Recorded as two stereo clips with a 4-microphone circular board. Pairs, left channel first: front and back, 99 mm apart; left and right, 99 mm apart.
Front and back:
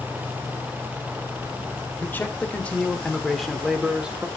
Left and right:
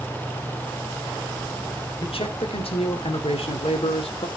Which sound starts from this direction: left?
A man speaking, at 2.0 s.